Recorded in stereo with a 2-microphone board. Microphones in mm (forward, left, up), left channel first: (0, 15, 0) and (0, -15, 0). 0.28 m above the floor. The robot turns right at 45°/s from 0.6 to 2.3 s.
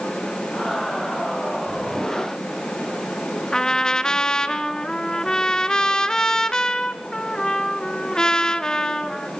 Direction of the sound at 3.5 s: 25° left (ahead or behind).